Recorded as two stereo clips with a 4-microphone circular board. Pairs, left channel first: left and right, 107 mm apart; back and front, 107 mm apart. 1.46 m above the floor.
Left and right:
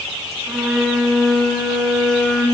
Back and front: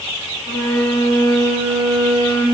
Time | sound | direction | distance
0.5 | a violin | straight behind | 3 m